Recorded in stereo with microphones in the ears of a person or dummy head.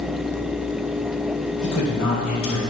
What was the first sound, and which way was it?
A man speaking, 85° left.